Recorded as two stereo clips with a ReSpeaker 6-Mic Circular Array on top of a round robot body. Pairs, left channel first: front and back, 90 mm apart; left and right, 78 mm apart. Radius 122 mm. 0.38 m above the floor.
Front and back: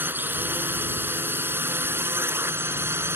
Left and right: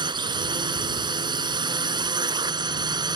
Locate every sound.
0.0 s a drone: 110° right; by 3.2 s 115° right